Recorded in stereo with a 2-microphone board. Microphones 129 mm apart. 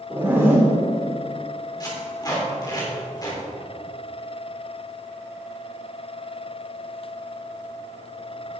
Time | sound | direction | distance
0.1 | a zipper | 15° right (ahead or behind) | 2 m
1.8 | tape being pulled | 30° left (ahead or behind) | 3 m